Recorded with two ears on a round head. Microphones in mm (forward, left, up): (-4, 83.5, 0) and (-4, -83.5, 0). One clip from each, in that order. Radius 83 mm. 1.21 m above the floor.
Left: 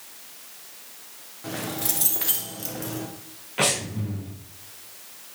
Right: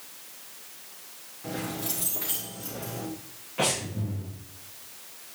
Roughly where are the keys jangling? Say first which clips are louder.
Left 3 dB; left.